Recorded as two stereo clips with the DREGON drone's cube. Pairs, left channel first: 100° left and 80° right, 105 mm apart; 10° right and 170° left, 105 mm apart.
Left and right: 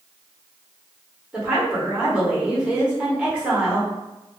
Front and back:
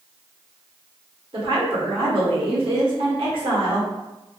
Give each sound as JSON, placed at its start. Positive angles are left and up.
{"t": 1.3, "sound": "a woman speaking", "azimuth_deg": -155, "distance_m": 1.1}